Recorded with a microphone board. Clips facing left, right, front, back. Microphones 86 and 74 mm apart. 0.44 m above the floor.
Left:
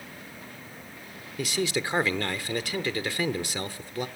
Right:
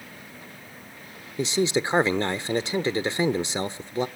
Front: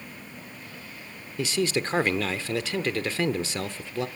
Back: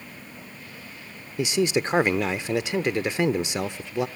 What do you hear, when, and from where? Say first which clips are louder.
1.4 s a man speaking: right 5 dB, back 3 dB; 125° right, 0.8 m